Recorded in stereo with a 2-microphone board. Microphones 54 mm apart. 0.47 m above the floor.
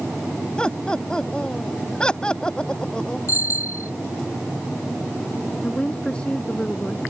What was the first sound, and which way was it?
Laughter, 15° left (ahead or behind).